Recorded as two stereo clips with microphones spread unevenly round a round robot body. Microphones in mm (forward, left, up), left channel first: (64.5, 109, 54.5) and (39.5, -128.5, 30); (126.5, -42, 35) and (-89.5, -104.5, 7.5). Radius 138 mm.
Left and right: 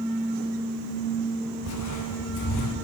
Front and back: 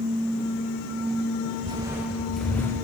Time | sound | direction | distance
1.6 | footsteps | 120° left | 1.7 m